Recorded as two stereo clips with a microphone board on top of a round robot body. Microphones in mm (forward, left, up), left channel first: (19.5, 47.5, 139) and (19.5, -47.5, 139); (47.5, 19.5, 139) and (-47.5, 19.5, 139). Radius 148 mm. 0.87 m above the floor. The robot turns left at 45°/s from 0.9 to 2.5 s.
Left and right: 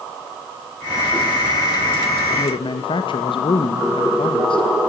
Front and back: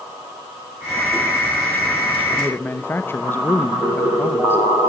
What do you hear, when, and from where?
2.3 s a man speaking: 75° left, 1.1 m; by 4.6 s 65° left, 1.1 m